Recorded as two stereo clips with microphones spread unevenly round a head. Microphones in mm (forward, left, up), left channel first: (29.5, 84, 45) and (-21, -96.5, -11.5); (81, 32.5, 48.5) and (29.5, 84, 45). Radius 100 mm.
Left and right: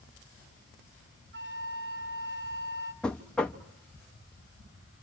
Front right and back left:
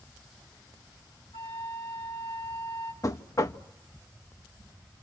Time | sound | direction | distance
1.3 | a flute | 65° right | 2 m
3.0 | knocking | straight ahead | 0.7 m